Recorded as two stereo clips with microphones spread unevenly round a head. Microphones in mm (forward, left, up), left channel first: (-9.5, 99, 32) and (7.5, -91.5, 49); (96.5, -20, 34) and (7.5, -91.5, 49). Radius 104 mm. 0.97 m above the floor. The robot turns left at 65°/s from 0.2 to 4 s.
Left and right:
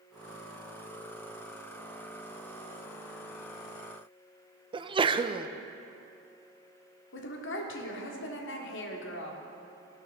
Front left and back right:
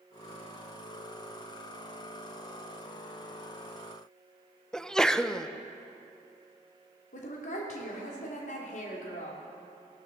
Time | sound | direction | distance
4.7 | a sneeze | 30° right | 0.6 m
7.1 | a woman speaking | 70° left | 2.0 m